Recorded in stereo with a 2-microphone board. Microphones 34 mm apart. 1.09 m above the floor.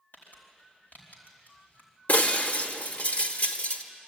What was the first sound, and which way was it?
Crumpling, 75° left (ahead or behind).